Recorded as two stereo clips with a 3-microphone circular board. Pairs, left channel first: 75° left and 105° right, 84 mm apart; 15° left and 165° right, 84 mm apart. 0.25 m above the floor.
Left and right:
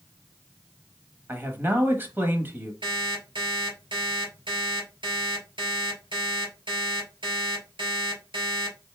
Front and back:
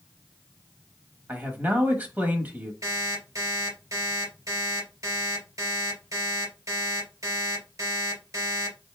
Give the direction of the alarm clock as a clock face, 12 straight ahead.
4 o'clock.